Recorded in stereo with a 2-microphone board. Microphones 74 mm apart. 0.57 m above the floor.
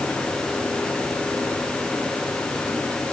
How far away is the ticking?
No ticking in this recording.